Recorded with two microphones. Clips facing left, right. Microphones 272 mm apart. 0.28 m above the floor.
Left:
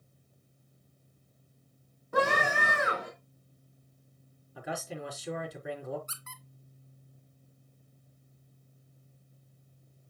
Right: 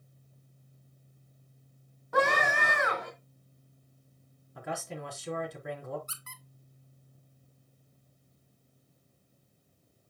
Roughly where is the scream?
Left.